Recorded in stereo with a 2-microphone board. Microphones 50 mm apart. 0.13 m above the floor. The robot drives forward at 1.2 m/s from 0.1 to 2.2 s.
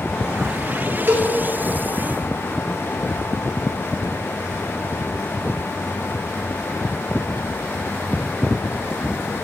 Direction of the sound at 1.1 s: 45° right (ahead or behind).